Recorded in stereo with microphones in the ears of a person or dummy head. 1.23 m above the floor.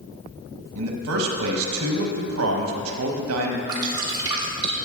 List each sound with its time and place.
0.8 s a man speaking: 80° right, 1.1 m
3.7 s dripping: 25° right (ahead or behind), 1.6 m